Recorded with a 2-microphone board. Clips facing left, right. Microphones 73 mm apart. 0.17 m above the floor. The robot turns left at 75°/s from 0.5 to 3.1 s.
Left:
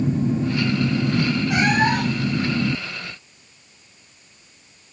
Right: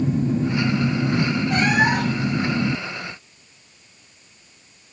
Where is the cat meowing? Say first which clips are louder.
Even; 15° left, 2 m; by 2.4 s 50° right, 2 m.